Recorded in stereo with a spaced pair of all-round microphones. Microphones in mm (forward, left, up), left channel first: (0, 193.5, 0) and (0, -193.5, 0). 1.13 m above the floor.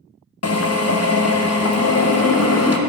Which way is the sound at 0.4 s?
40° left (ahead or behind).